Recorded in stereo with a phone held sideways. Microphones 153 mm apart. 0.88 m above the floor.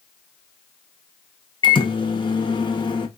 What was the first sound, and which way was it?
A microwave, 30° left (ahead or behind).